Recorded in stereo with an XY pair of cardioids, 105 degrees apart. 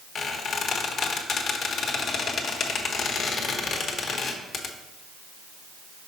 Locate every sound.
0.1 s a squeak: 65° left, 1.2 m